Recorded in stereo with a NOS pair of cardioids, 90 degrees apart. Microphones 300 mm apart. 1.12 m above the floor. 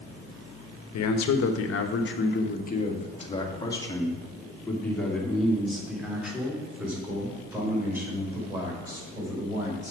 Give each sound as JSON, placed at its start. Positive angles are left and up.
{"t": 0.9, "sound": "a man speaking", "azimuth_deg": 70, "distance_m": 1.1}